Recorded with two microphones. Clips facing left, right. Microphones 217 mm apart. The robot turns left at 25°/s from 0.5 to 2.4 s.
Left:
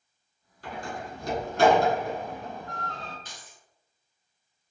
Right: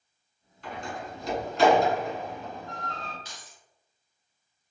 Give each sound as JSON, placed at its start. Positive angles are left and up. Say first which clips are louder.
{"t": 0.6, "sound": "a door slam", "louder": "even", "side_deg": 40, "distance_m": 1.3}
{"t": 3.2, "sound": "keys jangling", "louder": "even", "side_deg": 50, "distance_m": 1.7}